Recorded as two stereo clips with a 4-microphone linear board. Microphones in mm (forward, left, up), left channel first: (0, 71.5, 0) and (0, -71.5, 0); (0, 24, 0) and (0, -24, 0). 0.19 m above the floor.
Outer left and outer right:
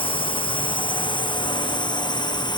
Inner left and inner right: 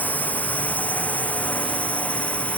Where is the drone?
35° left (ahead or behind); by 2.6 s 30° left (ahead or behind).